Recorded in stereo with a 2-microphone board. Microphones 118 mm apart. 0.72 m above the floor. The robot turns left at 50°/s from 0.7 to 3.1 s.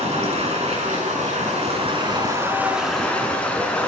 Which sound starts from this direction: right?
Running water, at 0.0 s.